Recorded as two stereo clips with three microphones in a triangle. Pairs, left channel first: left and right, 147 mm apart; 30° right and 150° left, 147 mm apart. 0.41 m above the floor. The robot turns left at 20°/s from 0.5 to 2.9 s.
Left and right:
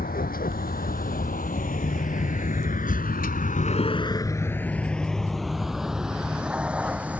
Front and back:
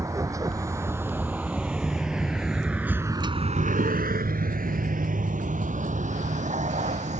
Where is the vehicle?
80° left; by 7.2 s 170° right.